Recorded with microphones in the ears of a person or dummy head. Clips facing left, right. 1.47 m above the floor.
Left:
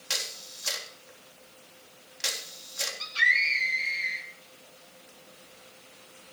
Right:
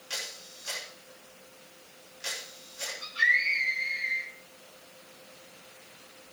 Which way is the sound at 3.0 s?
85° left.